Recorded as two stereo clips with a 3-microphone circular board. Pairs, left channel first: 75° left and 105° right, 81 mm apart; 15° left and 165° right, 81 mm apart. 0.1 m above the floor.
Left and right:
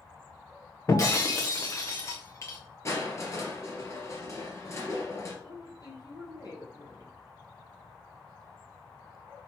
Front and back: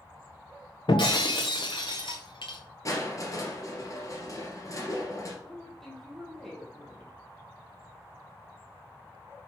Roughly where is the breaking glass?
Ahead.